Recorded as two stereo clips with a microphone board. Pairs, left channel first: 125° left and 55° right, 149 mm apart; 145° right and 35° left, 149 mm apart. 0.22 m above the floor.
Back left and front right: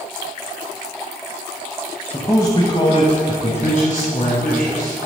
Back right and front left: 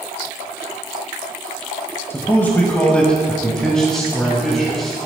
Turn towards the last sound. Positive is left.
turn(degrees=125)